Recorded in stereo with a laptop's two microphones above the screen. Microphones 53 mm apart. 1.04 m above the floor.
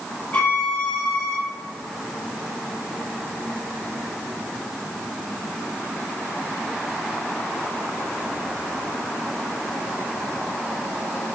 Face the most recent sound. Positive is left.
turn(degrees=25)  # may be behind; listen again after turning